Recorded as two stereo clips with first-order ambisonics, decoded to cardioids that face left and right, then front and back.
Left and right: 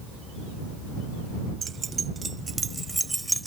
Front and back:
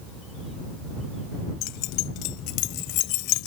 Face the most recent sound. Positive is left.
turn(degrees=-5)